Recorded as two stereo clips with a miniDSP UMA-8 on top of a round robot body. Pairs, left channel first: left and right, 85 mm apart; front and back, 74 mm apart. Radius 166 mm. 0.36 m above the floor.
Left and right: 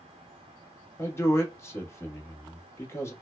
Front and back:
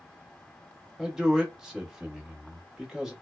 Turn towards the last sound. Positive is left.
turn(degrees=105)